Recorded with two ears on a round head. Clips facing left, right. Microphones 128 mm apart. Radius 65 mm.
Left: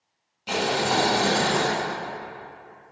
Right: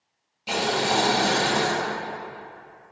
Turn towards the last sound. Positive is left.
turn(degrees=-10)  # may be behind; listen again after turning